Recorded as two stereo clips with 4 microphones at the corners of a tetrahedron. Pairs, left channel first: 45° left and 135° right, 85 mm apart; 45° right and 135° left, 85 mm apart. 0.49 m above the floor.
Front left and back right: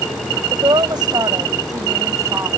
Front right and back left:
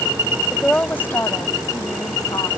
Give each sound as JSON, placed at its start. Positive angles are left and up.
{"t": 0.5, "sound": "a woman speaking", "azimuth_deg": -125}